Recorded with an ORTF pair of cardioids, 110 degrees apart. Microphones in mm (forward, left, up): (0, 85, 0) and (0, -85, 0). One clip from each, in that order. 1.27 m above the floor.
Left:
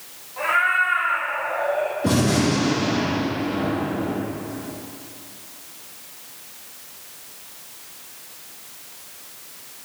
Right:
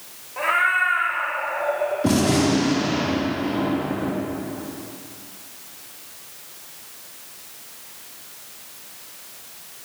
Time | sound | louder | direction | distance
0.4 | a cat meowing | even | 30° right | 1.6 m
2.0 | a gunshot | right 1 dB | 25° right | 2.5 m